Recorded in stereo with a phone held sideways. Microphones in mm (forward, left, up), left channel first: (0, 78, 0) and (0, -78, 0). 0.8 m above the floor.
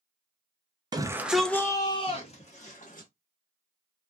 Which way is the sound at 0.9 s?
25° right (ahead or behind).